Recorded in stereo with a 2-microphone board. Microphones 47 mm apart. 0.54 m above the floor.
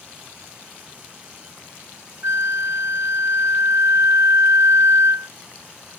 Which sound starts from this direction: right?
A flute, at 2.2 s.